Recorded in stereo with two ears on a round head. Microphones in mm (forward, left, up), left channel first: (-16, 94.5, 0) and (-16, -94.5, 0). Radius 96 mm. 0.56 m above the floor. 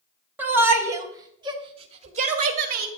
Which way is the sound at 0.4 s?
10° right (ahead or behind).